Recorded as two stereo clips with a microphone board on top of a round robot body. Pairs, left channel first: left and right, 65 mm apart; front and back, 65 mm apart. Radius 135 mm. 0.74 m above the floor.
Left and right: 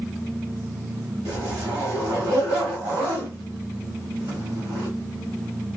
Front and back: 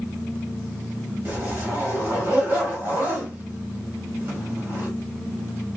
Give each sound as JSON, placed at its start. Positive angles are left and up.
{"t": 1.2, "sound": "a zipper", "azimuth_deg": -125, "distance_m": 1.1}